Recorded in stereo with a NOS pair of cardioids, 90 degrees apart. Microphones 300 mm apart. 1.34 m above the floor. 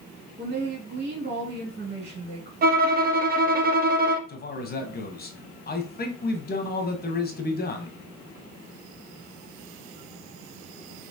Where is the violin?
30° right, 0.6 m.